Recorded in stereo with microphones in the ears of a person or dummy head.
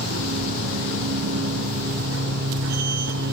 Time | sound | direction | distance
0.0 | a machine running | 70° right (ahead or behind) | 3.5 m